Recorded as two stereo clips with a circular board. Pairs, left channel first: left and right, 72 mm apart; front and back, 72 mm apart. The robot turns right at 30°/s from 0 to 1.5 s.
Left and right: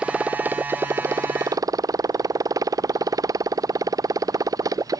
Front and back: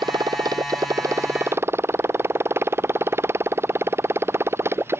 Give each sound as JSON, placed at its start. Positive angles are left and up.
{"t": 0.0, "sound": "a motorcycle", "azimuth_deg": -170}